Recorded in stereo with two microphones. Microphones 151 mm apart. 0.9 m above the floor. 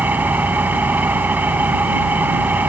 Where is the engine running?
10° right (ahead or behind).